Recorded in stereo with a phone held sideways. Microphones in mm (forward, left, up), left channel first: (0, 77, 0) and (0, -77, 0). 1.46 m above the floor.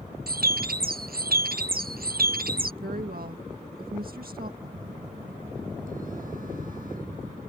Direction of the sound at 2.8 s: 75° right (ahead or behind).